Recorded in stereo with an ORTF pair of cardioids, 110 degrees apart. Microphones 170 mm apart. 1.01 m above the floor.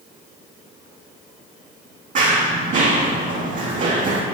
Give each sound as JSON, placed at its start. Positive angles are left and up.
{"t": 2.1, "sound": "running footsteps", "azimuth_deg": -55, "distance_m": 3.5}